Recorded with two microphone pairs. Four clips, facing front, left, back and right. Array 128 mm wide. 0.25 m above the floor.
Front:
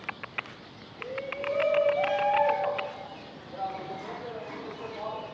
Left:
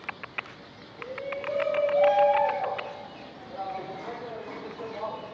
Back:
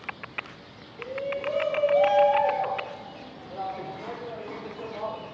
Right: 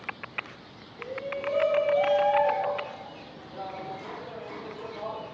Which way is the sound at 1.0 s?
170° right.